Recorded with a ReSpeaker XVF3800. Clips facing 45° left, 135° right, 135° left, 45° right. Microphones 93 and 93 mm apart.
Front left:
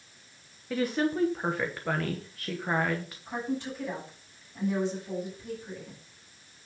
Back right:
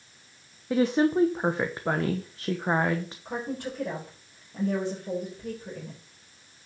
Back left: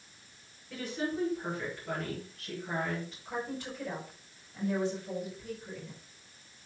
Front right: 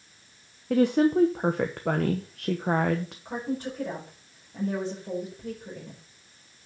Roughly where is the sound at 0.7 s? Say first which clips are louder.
Back right 5 dB, front right 14 dB; right.